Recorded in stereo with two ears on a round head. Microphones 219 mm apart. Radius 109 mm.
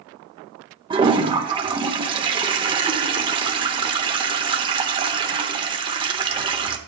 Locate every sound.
0.9 s a toilet flushing: 20° right (ahead or behind), 1.0 m